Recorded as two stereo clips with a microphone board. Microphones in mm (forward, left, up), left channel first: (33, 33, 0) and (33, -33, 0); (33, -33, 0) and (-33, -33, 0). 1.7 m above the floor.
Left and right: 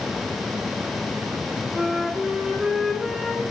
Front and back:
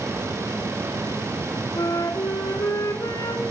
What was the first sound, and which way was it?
A flute, 5° right.